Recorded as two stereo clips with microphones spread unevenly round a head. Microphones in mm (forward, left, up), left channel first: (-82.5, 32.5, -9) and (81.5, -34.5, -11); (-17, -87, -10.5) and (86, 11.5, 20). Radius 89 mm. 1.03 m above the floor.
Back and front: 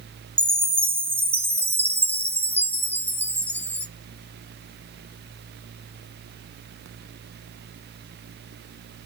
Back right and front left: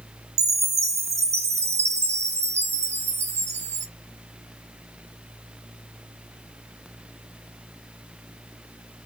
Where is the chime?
55° left, 0.8 m.